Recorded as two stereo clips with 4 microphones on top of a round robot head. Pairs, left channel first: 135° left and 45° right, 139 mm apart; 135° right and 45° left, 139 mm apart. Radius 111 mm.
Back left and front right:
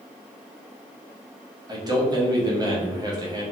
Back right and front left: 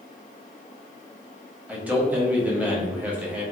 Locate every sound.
1.7 s a man speaking: 25° right, 1.1 m